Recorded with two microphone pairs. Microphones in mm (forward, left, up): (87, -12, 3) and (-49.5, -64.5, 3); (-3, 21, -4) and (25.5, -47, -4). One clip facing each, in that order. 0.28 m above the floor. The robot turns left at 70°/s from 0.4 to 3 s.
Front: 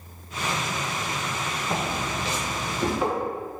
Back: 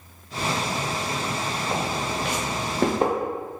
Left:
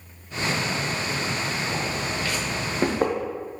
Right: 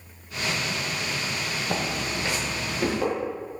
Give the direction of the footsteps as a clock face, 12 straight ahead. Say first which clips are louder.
Back 1 dB, even; 3 o'clock.